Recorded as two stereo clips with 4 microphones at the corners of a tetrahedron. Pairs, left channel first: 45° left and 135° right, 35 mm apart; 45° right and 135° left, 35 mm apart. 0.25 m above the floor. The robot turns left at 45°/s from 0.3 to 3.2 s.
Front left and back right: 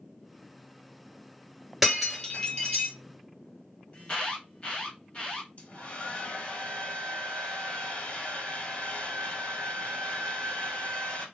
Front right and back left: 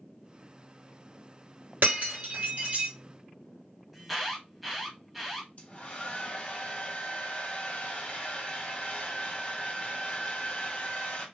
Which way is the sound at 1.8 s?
140° left.